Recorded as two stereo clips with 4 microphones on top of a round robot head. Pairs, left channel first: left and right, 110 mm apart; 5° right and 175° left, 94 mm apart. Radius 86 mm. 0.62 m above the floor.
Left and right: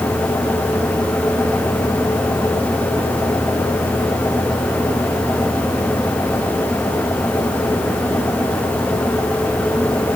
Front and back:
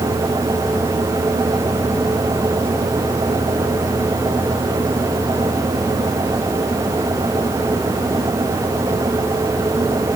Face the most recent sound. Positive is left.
No sound to turn to.